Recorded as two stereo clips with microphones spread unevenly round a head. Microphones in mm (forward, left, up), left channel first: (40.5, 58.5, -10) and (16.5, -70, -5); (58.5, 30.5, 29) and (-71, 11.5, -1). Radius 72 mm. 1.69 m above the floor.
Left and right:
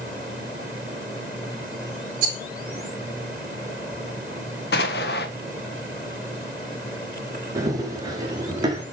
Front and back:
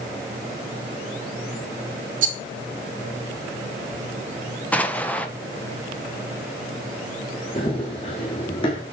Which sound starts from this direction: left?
An explosion, at 4.7 s.